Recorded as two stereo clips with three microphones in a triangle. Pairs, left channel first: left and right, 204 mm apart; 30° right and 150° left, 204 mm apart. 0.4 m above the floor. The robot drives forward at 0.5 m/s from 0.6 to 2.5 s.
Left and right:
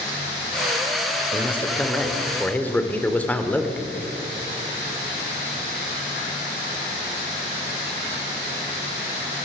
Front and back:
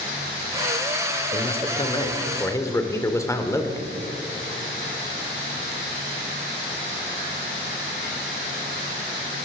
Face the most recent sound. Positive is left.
turn(degrees=20)